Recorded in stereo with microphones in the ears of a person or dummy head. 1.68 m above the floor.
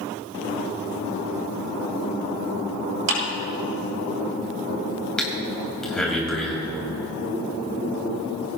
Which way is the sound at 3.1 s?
75° right (ahead or behind).